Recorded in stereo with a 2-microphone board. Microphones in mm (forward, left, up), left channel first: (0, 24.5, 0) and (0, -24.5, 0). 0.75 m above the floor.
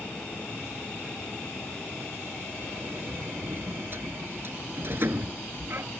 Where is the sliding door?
50° right (ahead or behind).